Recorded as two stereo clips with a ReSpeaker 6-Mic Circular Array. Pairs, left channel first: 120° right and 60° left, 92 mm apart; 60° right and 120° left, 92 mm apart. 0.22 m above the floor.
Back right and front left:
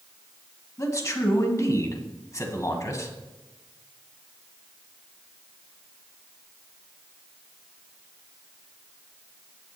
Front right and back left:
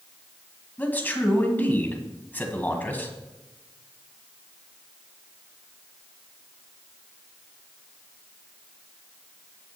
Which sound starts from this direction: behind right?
A man speaking, at 0.8 s.